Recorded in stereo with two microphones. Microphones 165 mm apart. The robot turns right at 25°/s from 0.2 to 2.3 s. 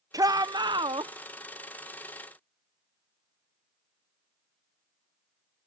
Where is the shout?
20° right (ahead or behind); by 1.1 s 30° right (ahead or behind).